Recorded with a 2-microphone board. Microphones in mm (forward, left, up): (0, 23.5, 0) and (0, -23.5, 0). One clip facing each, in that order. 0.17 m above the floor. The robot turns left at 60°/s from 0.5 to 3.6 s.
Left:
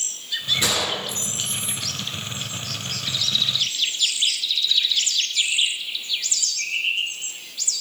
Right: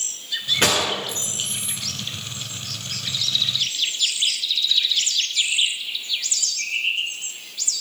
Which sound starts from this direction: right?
A gunshot, at 0.6 s.